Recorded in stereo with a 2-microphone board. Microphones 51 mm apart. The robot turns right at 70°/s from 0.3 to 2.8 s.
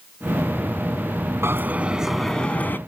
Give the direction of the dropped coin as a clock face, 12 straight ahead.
2 o'clock.